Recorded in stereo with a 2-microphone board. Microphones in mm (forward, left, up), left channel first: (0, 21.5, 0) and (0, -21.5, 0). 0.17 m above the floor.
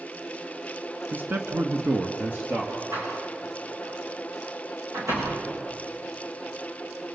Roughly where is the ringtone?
No ringtone in this recording.